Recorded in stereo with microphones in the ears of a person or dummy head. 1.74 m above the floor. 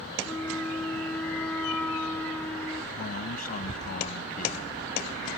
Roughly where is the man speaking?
Left.